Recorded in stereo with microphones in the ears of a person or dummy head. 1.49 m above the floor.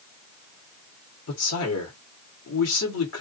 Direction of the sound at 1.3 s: 85° left.